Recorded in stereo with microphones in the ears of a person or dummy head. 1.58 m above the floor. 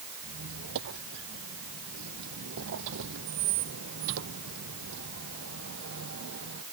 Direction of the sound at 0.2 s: 70° right (ahead or behind).